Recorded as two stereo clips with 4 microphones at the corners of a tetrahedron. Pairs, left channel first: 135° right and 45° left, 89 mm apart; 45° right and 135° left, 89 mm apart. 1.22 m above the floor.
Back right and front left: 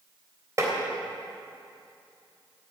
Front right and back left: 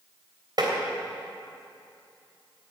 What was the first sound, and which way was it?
Tapping, 100° left.